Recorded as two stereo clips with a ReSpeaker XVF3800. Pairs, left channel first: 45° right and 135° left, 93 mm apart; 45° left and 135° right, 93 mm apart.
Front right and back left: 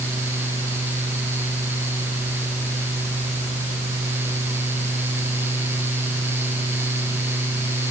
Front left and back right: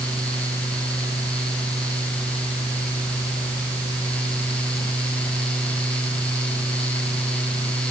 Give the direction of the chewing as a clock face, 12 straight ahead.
I don't hear chewing.